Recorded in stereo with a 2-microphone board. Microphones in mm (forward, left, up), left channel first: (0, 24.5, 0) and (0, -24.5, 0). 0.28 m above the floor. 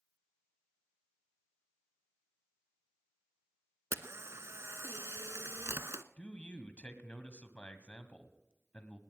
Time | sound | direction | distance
3.9 | a camera shutter | 70° right (ahead or behind) | 0.7 m
6.2 | a man speaking | 30° left (ahead or behind) | 1.7 m